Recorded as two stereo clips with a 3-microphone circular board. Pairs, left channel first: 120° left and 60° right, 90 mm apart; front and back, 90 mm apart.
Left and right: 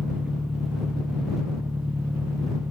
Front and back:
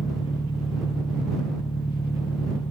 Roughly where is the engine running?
Ahead.